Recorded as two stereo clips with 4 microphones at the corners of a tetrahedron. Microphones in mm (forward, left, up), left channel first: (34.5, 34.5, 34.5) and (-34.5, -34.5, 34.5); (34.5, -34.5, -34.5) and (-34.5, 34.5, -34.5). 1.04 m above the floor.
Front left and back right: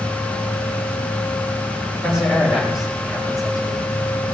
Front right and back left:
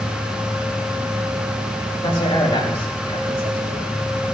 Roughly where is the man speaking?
Ahead right.